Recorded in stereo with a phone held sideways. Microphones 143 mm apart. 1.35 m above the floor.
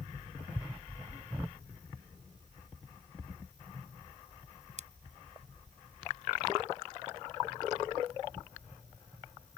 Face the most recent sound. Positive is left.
turn(degrees=-60)  # may be behind; listen again after turning